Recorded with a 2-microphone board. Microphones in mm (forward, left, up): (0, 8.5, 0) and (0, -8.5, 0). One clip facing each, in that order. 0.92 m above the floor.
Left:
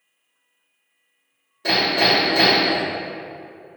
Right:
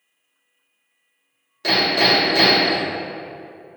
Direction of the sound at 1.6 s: 65° right (ahead or behind).